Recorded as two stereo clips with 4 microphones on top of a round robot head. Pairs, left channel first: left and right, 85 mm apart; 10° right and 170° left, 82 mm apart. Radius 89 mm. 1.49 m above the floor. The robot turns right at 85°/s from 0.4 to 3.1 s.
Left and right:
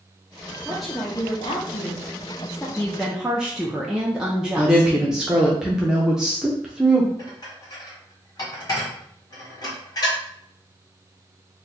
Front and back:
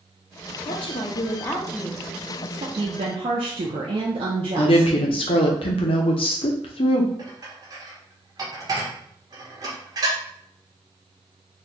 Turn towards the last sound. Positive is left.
turn(degrees=130)